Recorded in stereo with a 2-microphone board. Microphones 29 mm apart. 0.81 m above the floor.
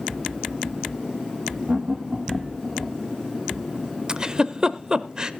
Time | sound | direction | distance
1.7 | laughter | 45° right (ahead or behind) | 1.1 m
4.1 | a giggle | 30° right (ahead or behind) | 0.6 m